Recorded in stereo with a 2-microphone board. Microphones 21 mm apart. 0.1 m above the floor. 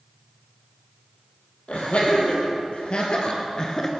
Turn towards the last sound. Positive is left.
turn(degrees=20)  # may be behind; listen again after turning